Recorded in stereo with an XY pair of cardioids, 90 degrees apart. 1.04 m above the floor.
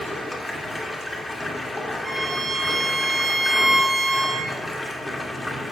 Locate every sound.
0.0 s running water: 25° left, 2 m
2.0 s a violin: 5° right, 5 m